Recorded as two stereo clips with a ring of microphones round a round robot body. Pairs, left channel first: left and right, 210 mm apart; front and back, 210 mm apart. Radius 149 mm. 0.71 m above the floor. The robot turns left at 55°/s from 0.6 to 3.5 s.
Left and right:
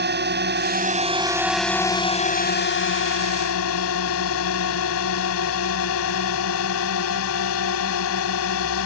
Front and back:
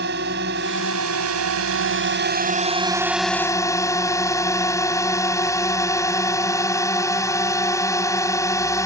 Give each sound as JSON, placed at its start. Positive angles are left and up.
{"t": 0.0, "sound": "a drone", "azimuth_deg": -125}